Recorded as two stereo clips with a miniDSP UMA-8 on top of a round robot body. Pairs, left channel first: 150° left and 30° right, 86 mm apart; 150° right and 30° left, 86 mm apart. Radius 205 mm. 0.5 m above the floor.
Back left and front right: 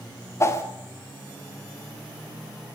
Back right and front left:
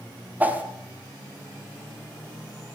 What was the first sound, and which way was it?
A whoosh, 100° left.